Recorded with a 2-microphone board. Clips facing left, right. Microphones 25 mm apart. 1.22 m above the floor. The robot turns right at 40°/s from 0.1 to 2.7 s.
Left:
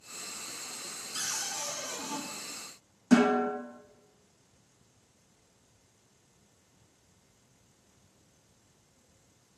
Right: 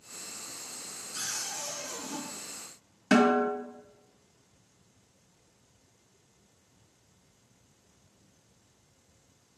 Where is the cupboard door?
70° left, 1.4 m; by 2.2 s 110° left, 1.4 m.